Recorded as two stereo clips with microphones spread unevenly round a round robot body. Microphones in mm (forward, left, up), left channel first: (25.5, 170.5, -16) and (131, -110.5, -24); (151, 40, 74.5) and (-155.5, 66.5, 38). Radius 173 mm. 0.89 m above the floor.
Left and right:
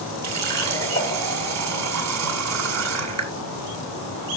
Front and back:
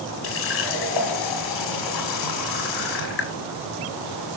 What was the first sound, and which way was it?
A running tap, 35° right.